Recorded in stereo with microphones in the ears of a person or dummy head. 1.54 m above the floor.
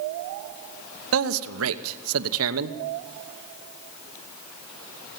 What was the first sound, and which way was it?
A man speaking, 80° right.